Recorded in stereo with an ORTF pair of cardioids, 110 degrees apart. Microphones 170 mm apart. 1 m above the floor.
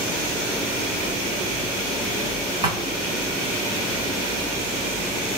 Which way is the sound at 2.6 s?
30° right.